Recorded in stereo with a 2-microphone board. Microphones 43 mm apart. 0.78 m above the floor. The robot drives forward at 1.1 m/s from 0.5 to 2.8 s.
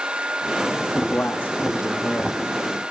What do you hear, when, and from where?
0.9 s a man speaking: 45° left (ahead or behind), 1.4 m; by 2.4 s 40° left (ahead or behind), 1.6 m